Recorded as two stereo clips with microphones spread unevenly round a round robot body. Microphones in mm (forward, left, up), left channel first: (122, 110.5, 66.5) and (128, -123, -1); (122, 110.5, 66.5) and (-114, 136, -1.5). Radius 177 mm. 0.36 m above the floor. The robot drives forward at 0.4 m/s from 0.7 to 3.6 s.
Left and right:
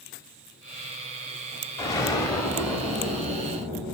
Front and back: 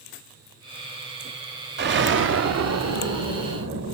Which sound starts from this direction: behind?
An explosion, at 1.8 s.